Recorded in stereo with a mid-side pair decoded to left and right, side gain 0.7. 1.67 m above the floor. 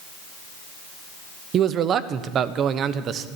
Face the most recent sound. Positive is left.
turn(degrees=-45)